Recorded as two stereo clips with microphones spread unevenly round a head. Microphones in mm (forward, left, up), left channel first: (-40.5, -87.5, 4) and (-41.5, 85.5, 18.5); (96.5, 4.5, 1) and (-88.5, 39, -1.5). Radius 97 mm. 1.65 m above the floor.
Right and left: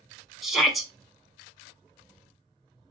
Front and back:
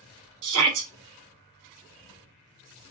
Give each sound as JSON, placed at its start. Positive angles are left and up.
{"t": 0.4, "sound": "a shout", "azimuth_deg": 180, "distance_m": 1.5}